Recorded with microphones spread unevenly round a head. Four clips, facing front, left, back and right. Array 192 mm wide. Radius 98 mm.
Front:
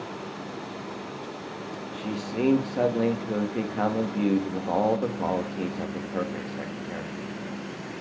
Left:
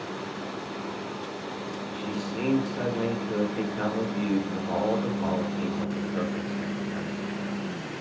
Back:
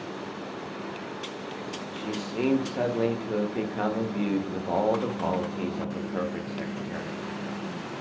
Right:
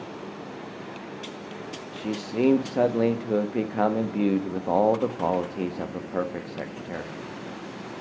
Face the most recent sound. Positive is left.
turn(degrees=-75)